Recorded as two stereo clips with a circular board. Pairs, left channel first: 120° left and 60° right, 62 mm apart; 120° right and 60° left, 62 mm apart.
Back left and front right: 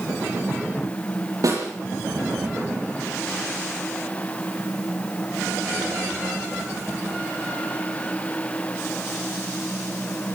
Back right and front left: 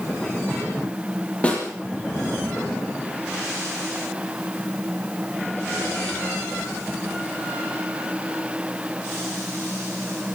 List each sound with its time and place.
1.4 s a snare drum: 50° right, 8.5 m